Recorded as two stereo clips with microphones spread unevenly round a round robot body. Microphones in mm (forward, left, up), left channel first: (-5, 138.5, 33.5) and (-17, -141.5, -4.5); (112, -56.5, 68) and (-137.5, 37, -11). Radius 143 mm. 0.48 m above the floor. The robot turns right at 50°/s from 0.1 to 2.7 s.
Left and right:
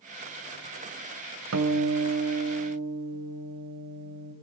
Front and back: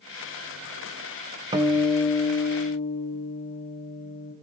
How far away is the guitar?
About 2 m.